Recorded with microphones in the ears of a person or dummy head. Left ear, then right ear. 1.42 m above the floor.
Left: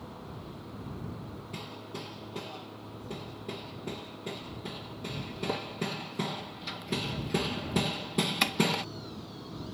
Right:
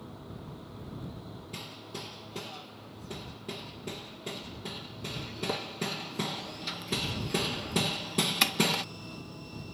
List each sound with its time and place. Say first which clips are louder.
1.5 s hammering: even; 10° right (ahead or behind)